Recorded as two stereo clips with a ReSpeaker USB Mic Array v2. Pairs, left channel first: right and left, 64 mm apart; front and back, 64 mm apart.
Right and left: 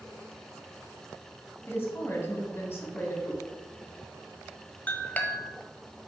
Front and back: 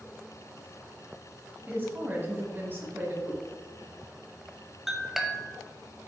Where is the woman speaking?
130° right, 1.9 m.